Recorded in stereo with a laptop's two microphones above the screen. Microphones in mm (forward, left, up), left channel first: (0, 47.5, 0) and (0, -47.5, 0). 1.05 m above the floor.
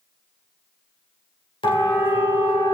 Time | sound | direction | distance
1.6 | a siren | 70° left (ahead or behind) | 3.5 m